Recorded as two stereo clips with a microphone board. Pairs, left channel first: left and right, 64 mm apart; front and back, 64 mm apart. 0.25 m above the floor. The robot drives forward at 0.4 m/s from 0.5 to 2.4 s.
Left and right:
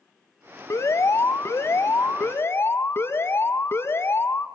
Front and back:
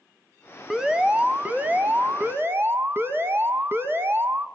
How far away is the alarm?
About 1.1 m.